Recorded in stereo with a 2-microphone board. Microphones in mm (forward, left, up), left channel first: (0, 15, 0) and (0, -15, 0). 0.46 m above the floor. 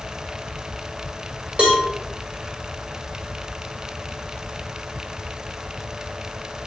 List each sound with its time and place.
1.6 s a cowbell: 40° right (ahead or behind), 1.0 m